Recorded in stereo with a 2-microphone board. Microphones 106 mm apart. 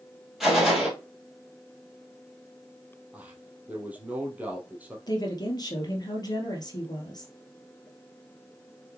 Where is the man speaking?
15° right (ahead or behind), 2.5 m.